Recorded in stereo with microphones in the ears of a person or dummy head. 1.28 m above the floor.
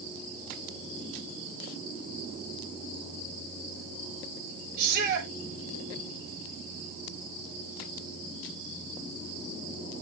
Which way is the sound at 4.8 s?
55° right (ahead or behind).